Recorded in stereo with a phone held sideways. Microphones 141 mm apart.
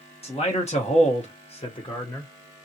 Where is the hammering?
I don't hear hammering.